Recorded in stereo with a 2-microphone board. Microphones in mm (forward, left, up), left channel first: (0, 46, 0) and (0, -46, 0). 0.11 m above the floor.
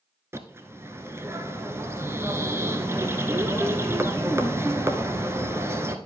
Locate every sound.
0.3 s a bird: 25° right (ahead or behind), 1.0 m